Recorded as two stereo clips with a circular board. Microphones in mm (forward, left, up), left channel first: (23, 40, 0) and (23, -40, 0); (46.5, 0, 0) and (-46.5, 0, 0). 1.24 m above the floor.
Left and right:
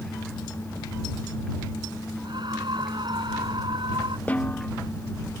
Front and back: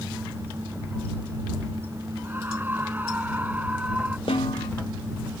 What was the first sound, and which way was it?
A scream, 115° right.